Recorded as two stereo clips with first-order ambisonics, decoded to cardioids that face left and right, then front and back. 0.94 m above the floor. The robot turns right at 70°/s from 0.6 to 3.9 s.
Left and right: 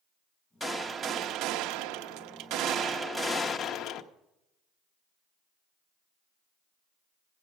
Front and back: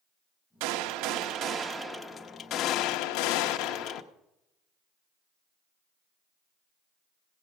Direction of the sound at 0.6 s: 170° left.